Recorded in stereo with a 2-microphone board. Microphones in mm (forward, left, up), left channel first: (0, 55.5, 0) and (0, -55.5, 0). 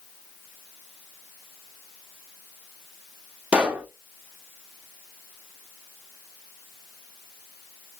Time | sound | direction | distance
3.5 | a pop | 10° right (ahead or behind) | 0.7 m